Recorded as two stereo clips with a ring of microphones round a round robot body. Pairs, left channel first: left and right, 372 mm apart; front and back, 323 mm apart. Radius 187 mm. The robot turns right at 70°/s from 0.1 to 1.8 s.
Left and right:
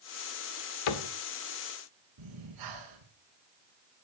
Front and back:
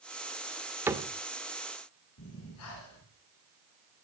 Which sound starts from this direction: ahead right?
Breathing, at 2.2 s.